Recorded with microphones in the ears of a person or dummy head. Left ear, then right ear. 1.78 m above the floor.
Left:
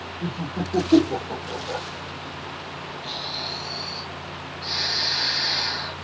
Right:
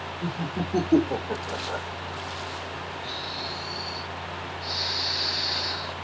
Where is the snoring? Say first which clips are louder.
Left 4 dB; 10° right (ahead or behind), 1.4 m.